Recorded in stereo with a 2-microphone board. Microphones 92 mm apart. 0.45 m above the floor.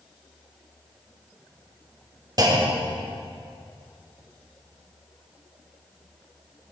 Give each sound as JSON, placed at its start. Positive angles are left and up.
{"t": 2.4, "sound": "a clunk", "side_deg": -45, "distance_m": 2.0}